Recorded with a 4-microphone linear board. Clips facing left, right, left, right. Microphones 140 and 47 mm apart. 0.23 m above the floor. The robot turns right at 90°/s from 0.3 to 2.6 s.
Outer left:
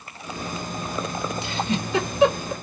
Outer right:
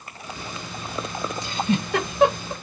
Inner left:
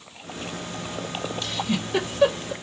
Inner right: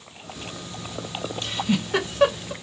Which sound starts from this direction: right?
A giggle, at 1.4 s.